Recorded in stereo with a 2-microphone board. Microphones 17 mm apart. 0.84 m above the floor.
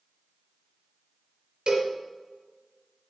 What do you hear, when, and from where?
1.7 s a cowbell: 50° right (ahead or behind), 4 m